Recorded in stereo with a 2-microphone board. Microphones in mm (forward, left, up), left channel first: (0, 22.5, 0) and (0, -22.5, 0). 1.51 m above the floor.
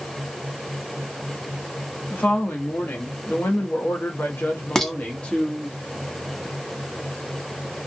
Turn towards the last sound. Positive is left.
turn(degrees=10)  # may be behind; listen again after turning